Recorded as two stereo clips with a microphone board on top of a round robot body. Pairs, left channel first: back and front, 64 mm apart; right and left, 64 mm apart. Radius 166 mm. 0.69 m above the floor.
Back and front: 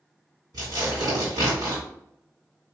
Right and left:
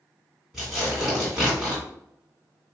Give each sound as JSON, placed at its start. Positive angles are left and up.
{"t": 0.5, "sound": "tearing paper", "azimuth_deg": 5, "distance_m": 1.7}